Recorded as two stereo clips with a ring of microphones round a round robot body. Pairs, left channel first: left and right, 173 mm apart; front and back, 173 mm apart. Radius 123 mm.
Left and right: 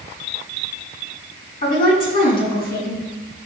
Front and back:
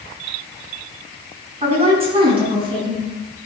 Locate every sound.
1.6 s a woman speaking: 125° left, 7 m; by 3.1 s 120° left, 6.5 m